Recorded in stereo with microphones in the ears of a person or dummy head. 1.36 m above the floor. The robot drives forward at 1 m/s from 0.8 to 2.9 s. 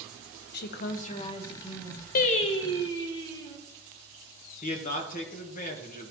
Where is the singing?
45° left (ahead or behind), 0.5 m; by 3.6 s 20° left (ahead or behind), 1.2 m.